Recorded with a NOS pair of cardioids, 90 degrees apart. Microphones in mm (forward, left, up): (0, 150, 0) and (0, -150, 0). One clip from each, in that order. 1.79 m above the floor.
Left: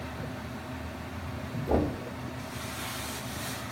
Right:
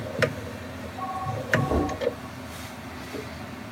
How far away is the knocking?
About 1.1 m.